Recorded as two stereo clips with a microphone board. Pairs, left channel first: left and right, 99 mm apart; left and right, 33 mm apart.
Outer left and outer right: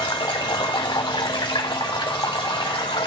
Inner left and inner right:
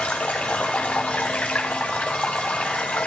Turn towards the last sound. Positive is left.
turn(degrees=45)  # may be behind; listen again after turning